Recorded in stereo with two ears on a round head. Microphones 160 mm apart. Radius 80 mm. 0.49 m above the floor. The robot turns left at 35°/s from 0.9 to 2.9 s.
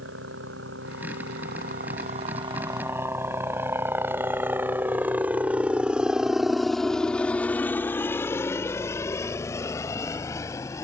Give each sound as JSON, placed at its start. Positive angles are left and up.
{"t": 0.0, "sound": "a helicopter", "side_deg": -75}